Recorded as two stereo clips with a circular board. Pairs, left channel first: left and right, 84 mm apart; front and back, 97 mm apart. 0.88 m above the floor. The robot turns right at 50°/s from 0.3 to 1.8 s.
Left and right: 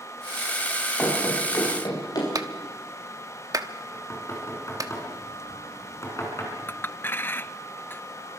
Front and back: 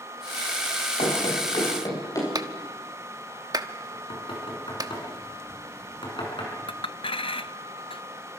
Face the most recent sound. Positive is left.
turn(degrees=25)